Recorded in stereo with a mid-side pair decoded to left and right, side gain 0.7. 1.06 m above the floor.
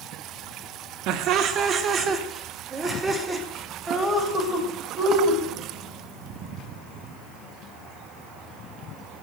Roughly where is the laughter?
Ahead right.